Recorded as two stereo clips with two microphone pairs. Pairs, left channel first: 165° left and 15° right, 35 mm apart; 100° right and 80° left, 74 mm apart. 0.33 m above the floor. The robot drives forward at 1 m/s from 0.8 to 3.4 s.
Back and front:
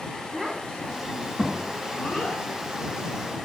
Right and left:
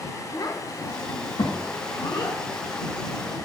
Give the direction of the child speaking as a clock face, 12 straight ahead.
3 o'clock.